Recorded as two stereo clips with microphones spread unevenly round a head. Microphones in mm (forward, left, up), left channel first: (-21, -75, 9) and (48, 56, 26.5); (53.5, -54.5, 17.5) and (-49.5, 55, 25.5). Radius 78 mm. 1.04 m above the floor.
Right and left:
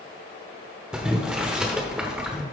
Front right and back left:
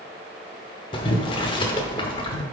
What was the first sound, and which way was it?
Boiling, 5° right.